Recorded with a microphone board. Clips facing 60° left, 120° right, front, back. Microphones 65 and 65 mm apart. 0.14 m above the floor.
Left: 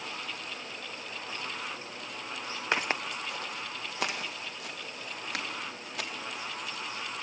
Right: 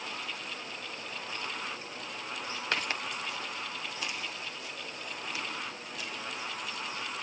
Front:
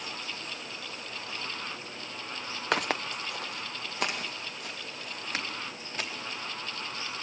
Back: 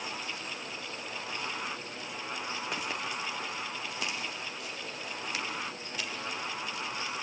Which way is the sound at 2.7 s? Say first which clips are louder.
Left 4 dB, front 10 dB; 10° right.